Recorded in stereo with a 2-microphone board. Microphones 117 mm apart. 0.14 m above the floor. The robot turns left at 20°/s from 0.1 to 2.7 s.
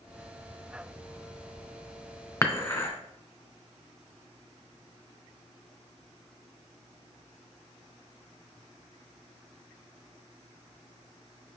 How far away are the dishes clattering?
About 0.9 m.